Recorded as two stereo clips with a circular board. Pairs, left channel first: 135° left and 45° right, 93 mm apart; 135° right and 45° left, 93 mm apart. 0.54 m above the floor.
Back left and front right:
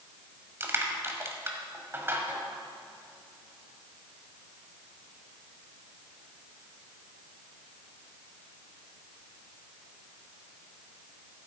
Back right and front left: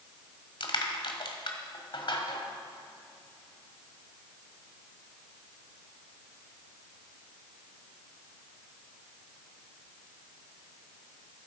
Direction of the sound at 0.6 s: 110° right.